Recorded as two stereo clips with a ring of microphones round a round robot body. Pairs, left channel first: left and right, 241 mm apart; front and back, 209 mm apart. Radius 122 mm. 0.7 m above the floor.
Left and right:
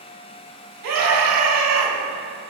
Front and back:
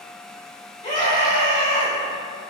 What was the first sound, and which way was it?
A scream, 70° right.